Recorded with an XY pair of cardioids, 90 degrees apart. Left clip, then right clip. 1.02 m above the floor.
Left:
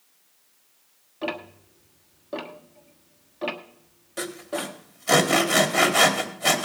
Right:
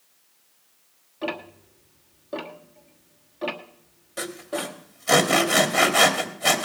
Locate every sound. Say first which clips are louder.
1.2 s ticking: even; 10° left, 1.3 m
4.2 s sawing: even; 5° left, 2 m